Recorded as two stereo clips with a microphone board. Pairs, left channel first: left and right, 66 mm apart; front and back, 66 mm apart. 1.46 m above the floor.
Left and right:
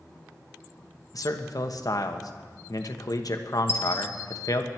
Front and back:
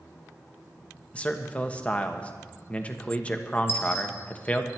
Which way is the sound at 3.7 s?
45° left.